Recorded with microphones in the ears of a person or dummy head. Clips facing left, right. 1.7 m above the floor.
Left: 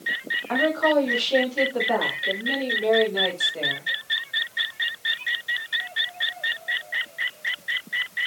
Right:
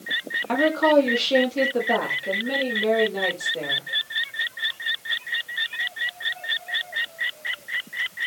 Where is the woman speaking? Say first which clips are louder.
Right 3 dB; 50° right (ahead or behind), 1.2 m; by 3.8 s 15° right (ahead or behind), 2.5 m.